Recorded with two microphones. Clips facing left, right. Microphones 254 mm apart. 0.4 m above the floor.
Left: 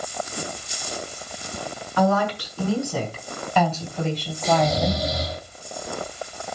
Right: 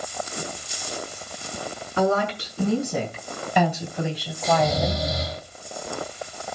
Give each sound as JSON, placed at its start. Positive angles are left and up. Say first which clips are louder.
{"t": 2.0, "sound": "a woman speaking", "louder": "left 1 dB", "side_deg": -25, "distance_m": 4.5}
{"t": 4.4, "sound": "snoring", "louder": "left 1 dB", "side_deg": -20, "distance_m": 7.0}